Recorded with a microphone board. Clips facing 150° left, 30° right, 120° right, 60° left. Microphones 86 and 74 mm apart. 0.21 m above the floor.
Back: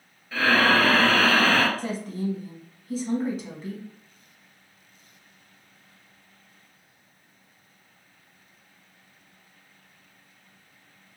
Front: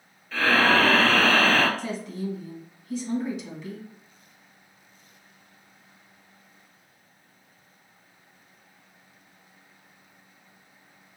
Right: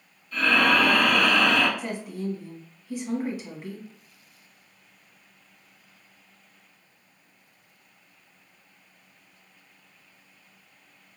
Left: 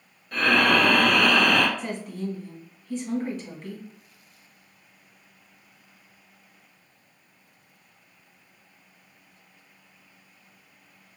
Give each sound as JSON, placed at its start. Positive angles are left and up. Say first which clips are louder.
{"t": 0.3, "sound": "breathing", "louder": "even, left 1 dB", "azimuth_deg": 70, "distance_m": 1.1}
{"t": 1.8, "sound": "a woman speaking", "louder": "back 2 dB, even", "azimuth_deg": 165, "distance_m": 1.4}